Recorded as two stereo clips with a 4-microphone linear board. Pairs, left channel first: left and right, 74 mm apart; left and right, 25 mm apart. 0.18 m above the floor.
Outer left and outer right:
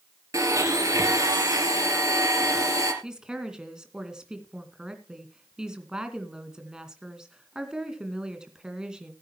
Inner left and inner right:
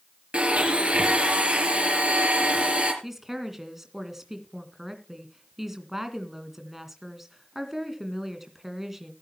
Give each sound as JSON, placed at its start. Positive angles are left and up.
{"t": 0.3, "sound": "a blender", "side_deg": -50, "distance_m": 3.5}
{"t": 3.0, "sound": "a woman speaking", "side_deg": -10, "distance_m": 2.0}